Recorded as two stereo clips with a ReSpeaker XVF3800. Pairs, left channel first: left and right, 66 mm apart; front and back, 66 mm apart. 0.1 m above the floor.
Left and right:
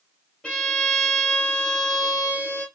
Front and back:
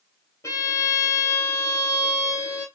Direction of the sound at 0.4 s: 15° left.